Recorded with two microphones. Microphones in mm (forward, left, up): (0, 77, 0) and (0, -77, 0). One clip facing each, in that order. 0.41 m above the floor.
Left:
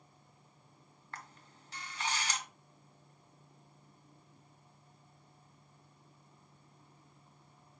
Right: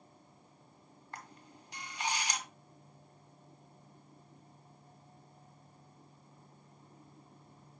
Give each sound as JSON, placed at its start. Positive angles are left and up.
{"t": 1.1, "sound": "a camera shutter", "side_deg": -15, "distance_m": 1.6}